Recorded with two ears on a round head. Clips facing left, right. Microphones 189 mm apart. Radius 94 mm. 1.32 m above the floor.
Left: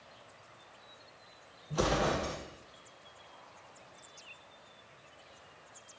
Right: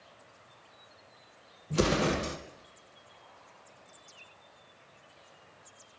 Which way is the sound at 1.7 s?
35° right (ahead or behind).